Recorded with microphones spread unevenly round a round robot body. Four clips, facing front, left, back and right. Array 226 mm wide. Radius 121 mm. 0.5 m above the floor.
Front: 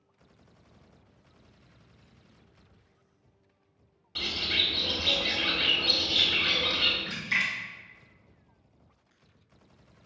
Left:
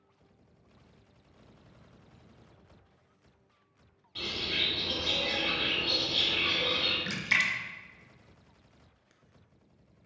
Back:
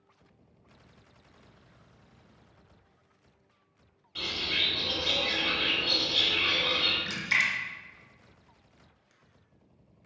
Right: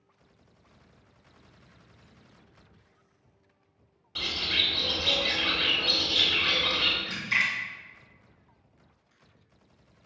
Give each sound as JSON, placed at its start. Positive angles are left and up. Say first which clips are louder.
{"t": 4.2, "sound": "a bird", "louder": "right 2 dB, front 1 dB", "azimuth_deg": -75, "distance_m": 1.1}
{"t": 7.1, "sound": "a splash", "louder": "right 1 dB, back 2 dB", "azimuth_deg": 110, "distance_m": 0.6}